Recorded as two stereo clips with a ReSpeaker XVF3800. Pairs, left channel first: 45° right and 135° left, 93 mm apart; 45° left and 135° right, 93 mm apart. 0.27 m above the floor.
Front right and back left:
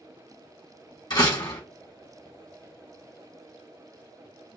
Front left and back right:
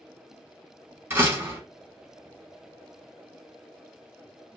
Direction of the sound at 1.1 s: 75° right.